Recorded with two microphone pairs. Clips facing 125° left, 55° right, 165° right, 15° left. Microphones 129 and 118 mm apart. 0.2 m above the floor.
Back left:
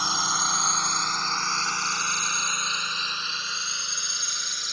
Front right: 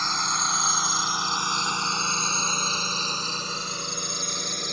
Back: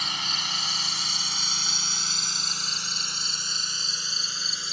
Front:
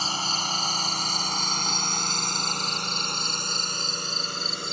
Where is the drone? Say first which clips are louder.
Even, front 5 dB; 50° left; by 4.7 s 20° right.